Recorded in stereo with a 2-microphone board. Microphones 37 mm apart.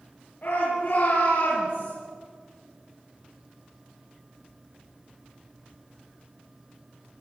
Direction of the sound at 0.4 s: 55° left (ahead or behind).